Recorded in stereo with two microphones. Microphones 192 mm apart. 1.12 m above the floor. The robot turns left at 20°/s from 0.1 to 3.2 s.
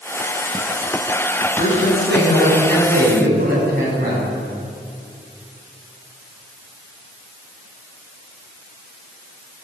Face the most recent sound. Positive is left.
turn(degrees=-135)